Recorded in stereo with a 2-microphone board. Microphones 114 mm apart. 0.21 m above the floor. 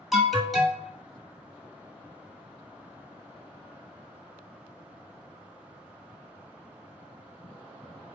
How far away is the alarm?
About 1.5 m.